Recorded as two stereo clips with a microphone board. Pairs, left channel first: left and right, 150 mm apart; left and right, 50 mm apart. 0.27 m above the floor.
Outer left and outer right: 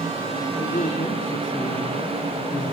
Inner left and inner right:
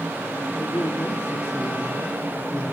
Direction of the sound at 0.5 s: 65° left (ahead or behind).